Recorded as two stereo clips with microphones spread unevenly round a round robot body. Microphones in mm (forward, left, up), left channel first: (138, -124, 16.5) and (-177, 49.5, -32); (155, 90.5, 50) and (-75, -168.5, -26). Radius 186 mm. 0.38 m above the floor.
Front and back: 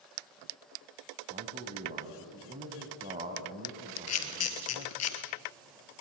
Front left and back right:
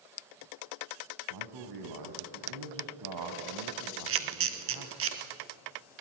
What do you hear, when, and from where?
1.3 s a man speaking: 140° right, 2.5 m
4.1 s a camera shutter: 75° right, 2 m